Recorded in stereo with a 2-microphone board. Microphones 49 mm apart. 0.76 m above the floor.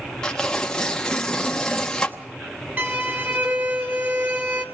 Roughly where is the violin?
Right.